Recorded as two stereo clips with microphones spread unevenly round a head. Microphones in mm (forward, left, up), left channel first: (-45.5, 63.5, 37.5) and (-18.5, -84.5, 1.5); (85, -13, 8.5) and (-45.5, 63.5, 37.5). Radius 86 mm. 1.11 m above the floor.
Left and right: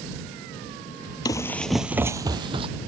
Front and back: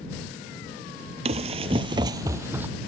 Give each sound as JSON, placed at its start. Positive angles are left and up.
{"t": 1.2, "sound": "running footsteps", "azimuth_deg": 140}